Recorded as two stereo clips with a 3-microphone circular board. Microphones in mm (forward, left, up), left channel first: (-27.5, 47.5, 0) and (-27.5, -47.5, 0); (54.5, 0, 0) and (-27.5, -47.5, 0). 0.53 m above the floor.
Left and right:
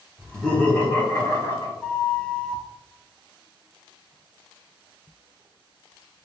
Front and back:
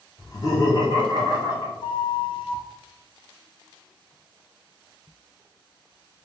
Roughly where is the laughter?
Ahead.